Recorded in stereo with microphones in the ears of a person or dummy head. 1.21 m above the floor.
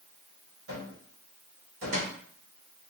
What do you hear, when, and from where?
0.7 s a cupboard door: 65° right (ahead or behind), 1.4 m